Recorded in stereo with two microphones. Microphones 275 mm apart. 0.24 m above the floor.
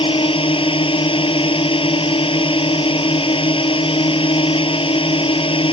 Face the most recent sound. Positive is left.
turn(degrees=20)  # may be behind; listen again after turning